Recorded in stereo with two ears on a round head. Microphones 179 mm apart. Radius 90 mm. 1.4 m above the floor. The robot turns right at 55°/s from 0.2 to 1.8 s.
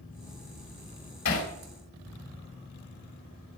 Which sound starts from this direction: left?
Hammering, at 1.2 s.